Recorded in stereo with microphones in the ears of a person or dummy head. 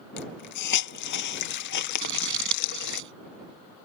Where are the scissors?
70° right (ahead or behind).